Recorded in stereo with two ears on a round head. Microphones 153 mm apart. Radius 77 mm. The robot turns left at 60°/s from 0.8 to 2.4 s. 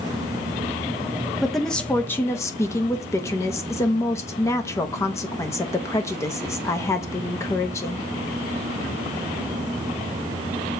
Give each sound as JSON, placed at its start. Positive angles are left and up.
{"t": 1.4, "sound": "a woman speaking", "side_deg": 0, "distance_m": 1.0}